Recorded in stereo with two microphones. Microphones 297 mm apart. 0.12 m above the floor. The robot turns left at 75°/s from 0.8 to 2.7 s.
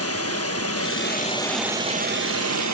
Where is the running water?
60° left, 0.7 m; by 2.7 s 85° right, 0.7 m.